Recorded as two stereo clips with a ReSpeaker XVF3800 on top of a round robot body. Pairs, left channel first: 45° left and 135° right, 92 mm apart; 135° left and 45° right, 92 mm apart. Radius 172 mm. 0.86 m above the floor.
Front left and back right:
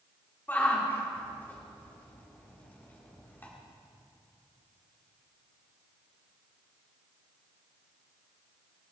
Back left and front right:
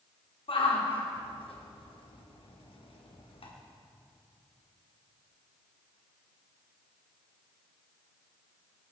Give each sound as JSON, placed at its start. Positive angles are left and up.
{"t": 0.5, "sound": "a shout", "azimuth_deg": 115, "distance_m": 2.5}